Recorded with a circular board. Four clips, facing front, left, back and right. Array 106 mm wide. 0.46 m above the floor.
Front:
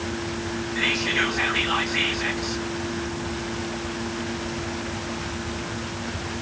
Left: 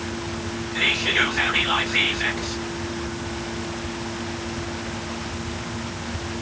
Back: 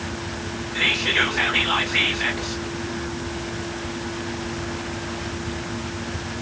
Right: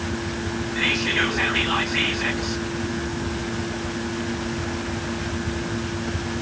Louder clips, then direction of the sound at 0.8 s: Even, back 2 dB; 145° left.